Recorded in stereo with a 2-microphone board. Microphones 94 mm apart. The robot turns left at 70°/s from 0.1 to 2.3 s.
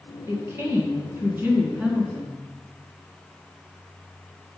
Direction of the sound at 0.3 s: 20° right (ahead or behind).